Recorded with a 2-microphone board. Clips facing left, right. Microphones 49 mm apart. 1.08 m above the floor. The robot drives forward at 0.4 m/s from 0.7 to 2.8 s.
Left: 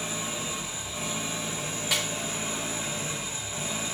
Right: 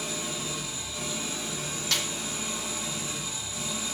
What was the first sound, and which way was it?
An engine running, 30° left (ahead or behind).